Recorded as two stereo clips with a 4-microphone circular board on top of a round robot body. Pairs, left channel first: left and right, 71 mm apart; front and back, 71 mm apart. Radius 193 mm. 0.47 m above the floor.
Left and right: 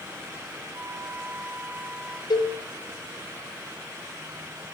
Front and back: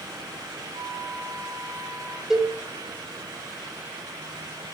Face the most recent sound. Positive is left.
turn(degrees=95)